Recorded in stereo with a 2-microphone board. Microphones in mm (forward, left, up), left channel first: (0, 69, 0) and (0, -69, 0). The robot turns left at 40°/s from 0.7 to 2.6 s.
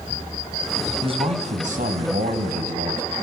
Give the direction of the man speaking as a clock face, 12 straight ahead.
1 o'clock.